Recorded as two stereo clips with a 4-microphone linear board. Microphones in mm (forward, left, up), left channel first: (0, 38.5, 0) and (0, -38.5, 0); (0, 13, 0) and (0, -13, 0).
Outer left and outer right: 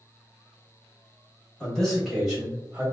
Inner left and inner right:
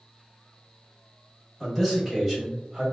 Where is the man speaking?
10° left (ahead or behind), 1.5 m; by 2.8 s 15° right (ahead or behind), 1.4 m.